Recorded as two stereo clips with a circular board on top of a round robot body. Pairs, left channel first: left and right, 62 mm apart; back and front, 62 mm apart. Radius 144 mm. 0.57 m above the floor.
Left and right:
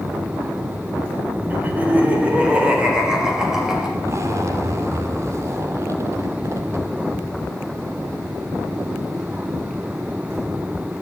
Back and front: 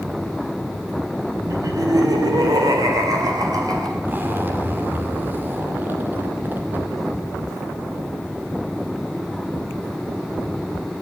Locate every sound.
1.5 s laughter: 30° right, 3 m; by 3.9 s 5° right, 4 m
4.0 s a zipper: 55° right, 2.5 m